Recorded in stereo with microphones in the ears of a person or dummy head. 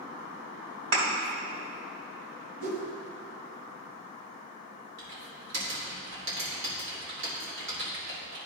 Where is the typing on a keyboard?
65° right (ahead or behind), 2.5 m.